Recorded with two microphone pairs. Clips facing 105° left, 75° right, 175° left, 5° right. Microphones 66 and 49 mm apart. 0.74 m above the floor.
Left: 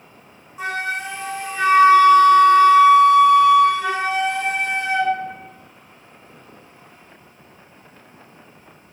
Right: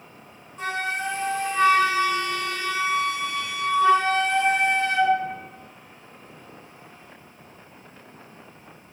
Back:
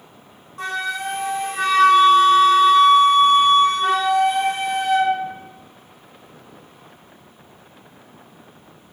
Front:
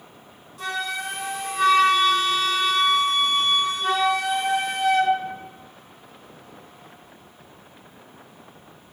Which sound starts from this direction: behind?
A flute, at 0.6 s.